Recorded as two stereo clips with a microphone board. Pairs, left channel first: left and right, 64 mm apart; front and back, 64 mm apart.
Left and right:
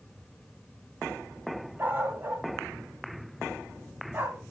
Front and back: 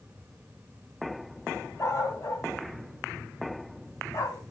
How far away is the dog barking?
About 2.5 m.